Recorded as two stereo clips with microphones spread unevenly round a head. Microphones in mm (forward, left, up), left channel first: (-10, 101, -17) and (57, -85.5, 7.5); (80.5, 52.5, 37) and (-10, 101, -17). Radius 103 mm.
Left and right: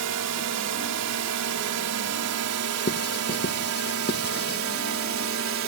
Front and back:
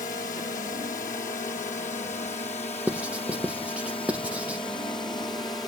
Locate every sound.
0.0 s a drone: 80° right; by 5.7 s 105° right
2.9 s writing: 65° left